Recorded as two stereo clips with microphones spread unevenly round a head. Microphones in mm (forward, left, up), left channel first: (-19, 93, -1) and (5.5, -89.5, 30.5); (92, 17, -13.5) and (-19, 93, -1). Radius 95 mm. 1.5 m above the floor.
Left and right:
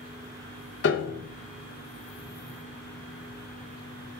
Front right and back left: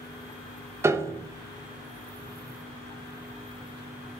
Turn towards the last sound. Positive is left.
turn(degrees=75)